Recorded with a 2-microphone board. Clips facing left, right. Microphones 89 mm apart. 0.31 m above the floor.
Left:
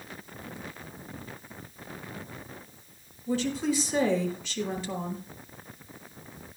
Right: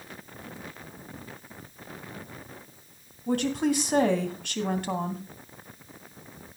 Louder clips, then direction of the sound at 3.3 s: Right 3 dB; 60° right (ahead or behind).